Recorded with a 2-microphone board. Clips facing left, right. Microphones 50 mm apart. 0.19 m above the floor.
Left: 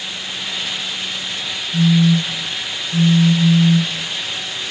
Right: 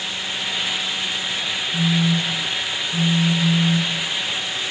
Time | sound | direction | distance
1.7 | a phone buzzing | 75° left (ahead or behind) | 2.5 m